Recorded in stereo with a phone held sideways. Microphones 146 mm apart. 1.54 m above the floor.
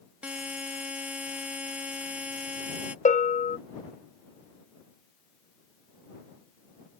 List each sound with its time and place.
0.2 s a buzzer: 10° right (ahead or behind)
3.0 s a bell: 60° left (ahead or behind)